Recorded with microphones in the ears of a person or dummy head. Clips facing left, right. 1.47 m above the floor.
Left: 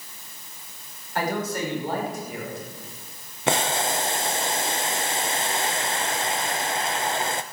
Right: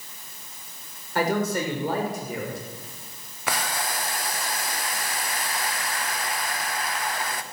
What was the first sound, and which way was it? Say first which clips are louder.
A man speaking: right 3 dB; 65° right (ahead or behind).